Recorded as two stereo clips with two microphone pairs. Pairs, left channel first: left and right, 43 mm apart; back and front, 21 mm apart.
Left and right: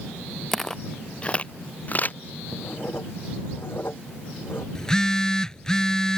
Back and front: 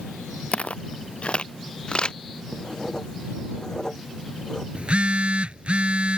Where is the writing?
120° left.